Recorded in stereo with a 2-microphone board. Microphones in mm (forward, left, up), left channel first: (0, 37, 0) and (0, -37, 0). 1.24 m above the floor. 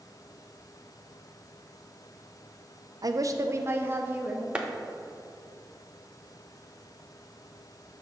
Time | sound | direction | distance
3.0 | a woman speaking | 55° right (ahead or behind) | 0.5 m
4.5 | a clap | 15° right (ahead or behind) | 0.7 m